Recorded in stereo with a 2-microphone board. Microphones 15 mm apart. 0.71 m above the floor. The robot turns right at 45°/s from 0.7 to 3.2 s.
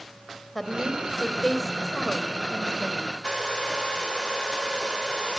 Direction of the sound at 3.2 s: 60° left (ahead or behind).